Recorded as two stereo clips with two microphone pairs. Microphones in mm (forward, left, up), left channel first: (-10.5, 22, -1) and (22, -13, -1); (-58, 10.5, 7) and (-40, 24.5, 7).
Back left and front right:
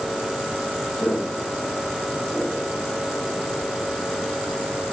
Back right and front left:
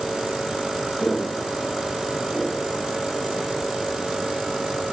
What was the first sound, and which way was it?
Footsteps, 155° left.